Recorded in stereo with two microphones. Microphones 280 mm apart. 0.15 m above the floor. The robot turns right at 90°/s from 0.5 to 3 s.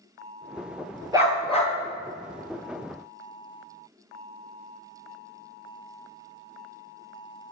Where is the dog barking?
15° right, 1.4 m; by 1.7 s 40° left, 1.4 m.